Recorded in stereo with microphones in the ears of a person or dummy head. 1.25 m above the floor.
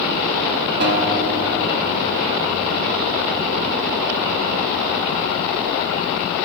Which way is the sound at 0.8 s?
50° right (ahead or behind).